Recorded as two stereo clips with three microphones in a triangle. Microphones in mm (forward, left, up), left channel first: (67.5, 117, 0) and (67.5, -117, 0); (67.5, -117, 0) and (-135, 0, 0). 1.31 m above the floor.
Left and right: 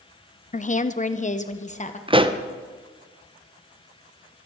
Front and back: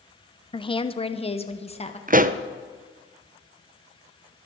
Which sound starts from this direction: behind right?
A pop, at 2.1 s.